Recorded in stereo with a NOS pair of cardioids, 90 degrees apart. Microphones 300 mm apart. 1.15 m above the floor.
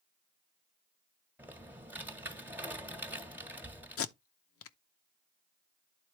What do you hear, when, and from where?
1.4 s typing on a keyboard: 5° right, 1.6 m
4.0 s tape being pulled: 50° left, 0.9 m